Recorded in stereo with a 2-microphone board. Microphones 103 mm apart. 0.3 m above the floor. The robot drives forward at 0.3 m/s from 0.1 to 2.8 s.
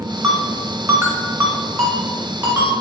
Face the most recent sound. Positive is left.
turn(degrees=-25)  # may be behind; listen again after turning